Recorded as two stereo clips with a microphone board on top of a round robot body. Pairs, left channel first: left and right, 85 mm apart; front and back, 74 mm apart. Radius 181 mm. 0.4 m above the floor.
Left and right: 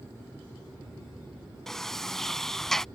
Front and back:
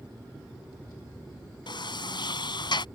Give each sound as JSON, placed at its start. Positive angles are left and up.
{"t": 1.7, "sound": "a sliding door", "azimuth_deg": 5}